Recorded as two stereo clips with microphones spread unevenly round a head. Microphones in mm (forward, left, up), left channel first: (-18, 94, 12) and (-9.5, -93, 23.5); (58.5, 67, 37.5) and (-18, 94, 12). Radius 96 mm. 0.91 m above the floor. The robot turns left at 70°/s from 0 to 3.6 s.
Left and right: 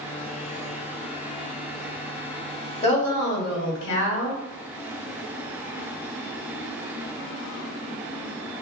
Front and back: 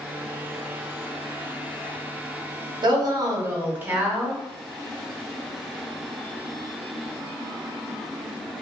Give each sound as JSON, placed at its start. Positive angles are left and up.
{"t": 2.8, "sound": "a woman speaking", "azimuth_deg": 150, "distance_m": 1.8}